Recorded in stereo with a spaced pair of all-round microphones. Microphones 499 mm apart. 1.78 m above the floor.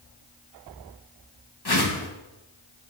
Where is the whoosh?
50° left (ahead or behind), 1.4 m.